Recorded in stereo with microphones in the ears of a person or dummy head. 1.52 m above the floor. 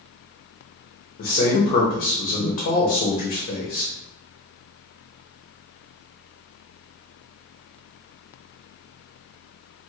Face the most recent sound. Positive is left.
turn(degrees=40)  # may be behind; listen again after turning